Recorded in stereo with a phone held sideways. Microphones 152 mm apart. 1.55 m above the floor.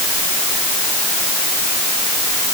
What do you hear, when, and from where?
Only background noise.